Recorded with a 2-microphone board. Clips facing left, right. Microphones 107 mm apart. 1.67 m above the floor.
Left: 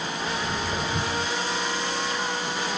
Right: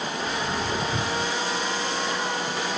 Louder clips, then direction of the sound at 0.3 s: Right 1 dB; 30° right (ahead or behind).